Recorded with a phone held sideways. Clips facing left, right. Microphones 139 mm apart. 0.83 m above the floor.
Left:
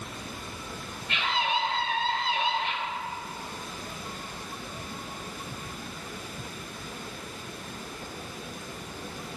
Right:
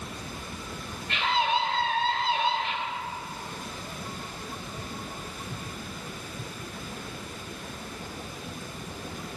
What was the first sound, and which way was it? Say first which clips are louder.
A scream: right 3 dB; 45° right (ahead or behind).